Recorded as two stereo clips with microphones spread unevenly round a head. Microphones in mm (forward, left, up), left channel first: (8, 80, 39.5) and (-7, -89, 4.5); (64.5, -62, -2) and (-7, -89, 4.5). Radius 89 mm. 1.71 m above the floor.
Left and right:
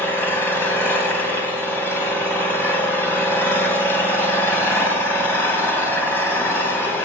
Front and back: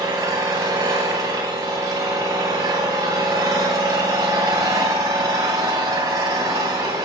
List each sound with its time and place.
0.0 s an engine running: 150° left, 2.5 m